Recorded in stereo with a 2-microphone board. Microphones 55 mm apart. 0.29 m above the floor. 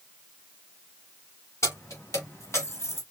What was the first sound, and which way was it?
Keys jangling, 70° left (ahead or behind).